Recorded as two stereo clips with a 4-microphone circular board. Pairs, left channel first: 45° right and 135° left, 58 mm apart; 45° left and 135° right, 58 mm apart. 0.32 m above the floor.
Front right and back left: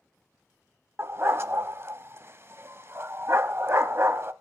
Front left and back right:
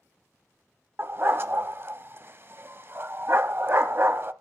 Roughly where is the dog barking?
Behind.